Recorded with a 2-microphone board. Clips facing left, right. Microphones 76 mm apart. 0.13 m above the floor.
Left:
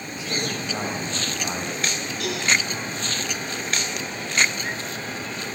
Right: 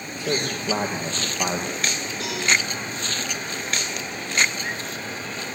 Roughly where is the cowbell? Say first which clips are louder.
Left 3 dB; right.